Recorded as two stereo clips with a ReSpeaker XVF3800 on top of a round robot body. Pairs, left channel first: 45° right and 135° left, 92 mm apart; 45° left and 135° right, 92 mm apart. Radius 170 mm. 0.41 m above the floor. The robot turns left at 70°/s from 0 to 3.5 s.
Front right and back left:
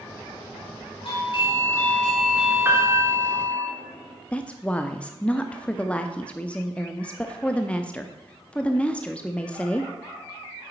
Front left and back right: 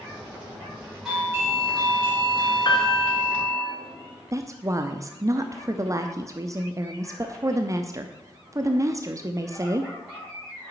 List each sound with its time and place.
1.1 s a doorbell: 50° right, 5.5 m; by 3.6 s 140° left, 5.5 m
2.6 s a piano: 75° left, 2.0 m; by 3.1 s 40° left, 2.0 m
4.3 s a woman speaking: 115° right, 0.9 m